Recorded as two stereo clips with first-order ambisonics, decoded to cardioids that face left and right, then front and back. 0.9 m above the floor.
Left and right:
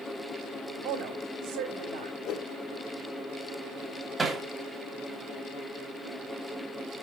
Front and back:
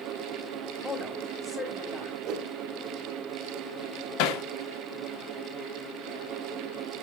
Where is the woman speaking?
65° right, 2.5 m.